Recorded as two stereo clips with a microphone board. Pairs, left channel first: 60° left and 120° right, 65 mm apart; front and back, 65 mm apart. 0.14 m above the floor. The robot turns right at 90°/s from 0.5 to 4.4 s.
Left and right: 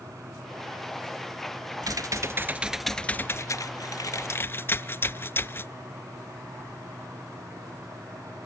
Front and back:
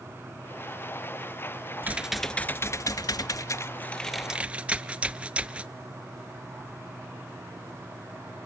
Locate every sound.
1.8 s typing on a keyboard: 120° right, 0.5 m; by 5.7 s 110° left, 0.5 m